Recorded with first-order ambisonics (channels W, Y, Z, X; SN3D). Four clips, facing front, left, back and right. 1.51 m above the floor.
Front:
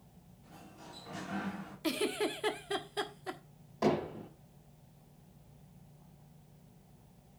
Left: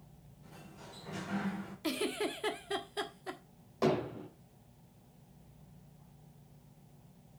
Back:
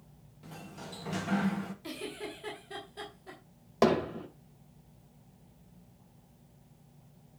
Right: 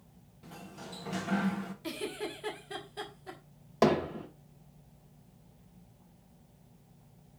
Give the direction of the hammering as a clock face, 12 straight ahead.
5 o'clock.